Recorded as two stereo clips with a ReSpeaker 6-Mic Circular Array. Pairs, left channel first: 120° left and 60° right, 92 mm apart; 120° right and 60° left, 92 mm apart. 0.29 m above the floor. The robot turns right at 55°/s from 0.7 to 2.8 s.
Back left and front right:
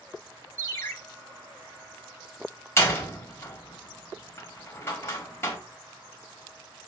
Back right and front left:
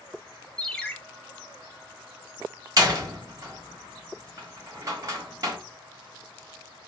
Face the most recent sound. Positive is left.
turn(degrees=75)